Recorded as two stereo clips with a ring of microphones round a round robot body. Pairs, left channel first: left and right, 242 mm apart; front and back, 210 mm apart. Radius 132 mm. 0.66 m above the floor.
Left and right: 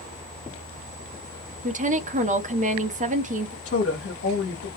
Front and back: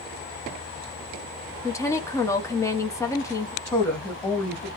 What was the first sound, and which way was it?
A woman speaking, 65° right.